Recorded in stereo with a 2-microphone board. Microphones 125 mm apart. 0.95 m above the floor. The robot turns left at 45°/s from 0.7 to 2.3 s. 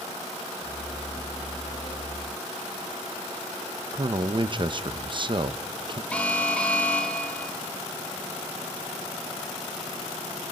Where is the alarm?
10° left (ahead or behind), 1.4 m.